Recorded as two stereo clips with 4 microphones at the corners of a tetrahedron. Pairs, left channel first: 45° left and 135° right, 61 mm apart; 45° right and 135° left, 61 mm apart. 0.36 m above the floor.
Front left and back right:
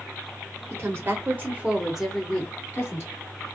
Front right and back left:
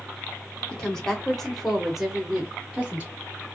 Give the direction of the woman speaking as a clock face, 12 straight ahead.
4 o'clock.